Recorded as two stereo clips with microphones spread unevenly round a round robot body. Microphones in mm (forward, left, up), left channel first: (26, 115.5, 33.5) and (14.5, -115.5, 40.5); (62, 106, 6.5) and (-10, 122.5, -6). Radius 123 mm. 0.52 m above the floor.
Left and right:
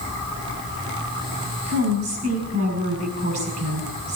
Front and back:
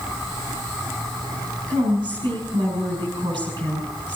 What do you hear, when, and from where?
1.7 s a woman speaking: 145° right, 6 m